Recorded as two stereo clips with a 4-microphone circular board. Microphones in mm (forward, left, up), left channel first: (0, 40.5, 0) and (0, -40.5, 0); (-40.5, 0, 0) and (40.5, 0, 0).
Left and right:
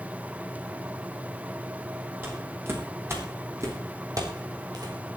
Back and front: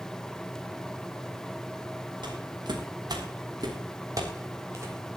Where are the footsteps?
25° right, 6.5 m; by 5.0 s 55° right, 4.5 m.